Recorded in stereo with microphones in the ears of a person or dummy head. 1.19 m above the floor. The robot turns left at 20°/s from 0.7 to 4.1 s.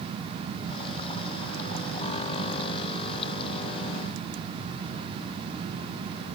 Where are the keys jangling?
I don't hear keys jangling.